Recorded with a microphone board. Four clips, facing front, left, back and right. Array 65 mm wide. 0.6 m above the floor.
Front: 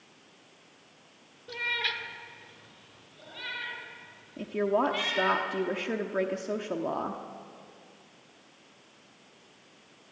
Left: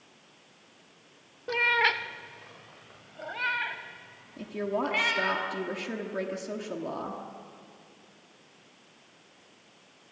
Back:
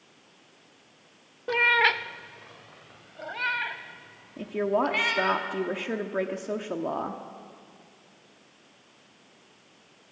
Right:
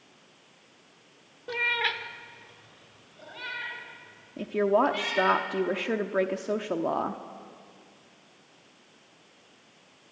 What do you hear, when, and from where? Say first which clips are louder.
1.5 s a cat meowing: left 4 dB, back 11 dB; 170° left, 0.6 m; by 5.4 s 140° left, 3 m
4.4 s a woman speaking: right 7 dB, back 1 dB; 100° right, 0.9 m